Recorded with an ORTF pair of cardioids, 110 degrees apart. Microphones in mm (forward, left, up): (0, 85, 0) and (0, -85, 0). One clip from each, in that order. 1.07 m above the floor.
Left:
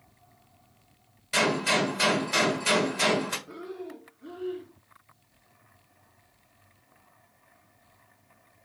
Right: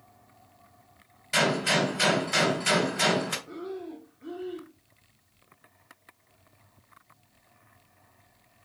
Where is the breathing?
5° right, 1.4 m.